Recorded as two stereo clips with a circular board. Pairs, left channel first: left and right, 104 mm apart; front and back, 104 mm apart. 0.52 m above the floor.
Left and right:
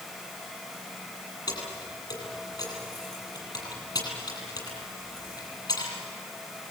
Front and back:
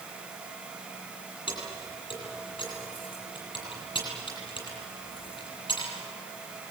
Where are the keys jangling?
40° left, 9.5 m.